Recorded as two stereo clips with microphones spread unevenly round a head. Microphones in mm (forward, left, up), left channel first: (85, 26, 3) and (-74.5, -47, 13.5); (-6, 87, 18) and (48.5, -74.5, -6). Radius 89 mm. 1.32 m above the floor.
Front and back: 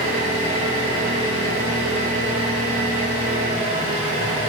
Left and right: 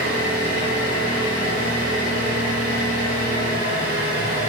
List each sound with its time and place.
0.0 s an engine running: 120° right, 5.5 m